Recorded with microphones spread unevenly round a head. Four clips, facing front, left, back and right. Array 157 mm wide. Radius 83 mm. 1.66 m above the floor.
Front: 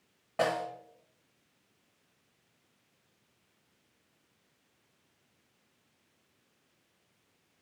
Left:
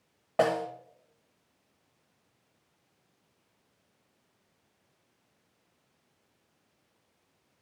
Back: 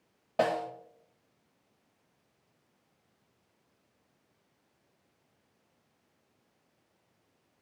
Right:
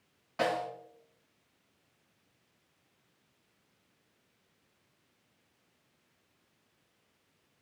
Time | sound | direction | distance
0.4 | a snare drum | 115° left | 1.3 m